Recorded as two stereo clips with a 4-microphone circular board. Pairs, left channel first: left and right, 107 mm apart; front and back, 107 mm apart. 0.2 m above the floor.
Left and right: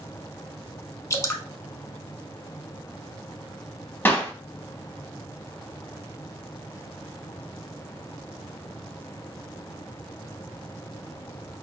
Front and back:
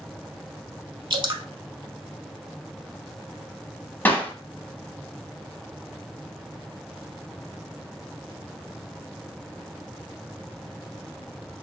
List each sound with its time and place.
1.1 s dripping: 145° left, 0.5 m
4.0 s a clap: 45° left, 0.8 m